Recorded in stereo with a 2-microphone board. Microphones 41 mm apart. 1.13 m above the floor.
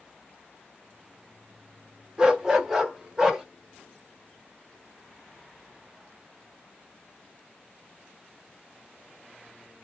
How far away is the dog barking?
About 0.8 m.